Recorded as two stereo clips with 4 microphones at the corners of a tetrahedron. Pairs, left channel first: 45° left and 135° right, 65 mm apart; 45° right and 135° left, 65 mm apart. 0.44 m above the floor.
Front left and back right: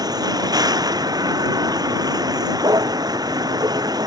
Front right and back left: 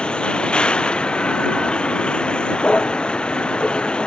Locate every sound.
0.0 s a vehicle: 120° right